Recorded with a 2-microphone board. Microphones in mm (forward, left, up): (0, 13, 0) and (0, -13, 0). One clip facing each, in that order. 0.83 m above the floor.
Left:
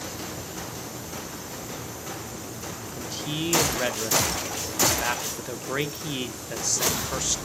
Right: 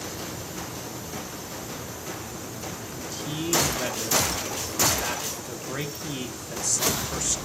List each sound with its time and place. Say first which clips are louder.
3.0 s a man speaking: left 3 dB; 30° left (ahead or behind), 0.7 m